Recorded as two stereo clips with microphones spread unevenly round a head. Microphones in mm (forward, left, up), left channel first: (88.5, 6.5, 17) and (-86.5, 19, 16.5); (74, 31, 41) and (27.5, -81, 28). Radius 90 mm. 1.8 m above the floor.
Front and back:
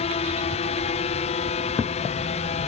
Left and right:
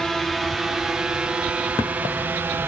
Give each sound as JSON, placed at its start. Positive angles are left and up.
{"t": 0.0, "sound": "a drone", "azimuth_deg": -25}